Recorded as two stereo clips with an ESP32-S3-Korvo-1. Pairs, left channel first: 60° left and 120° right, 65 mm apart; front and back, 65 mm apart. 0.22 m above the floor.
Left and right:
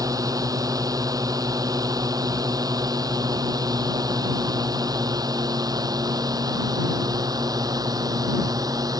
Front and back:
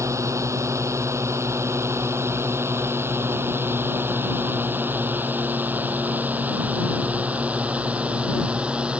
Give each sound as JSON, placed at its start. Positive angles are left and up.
{"t": 0.0, "sound": "a drone", "azimuth_deg": -145}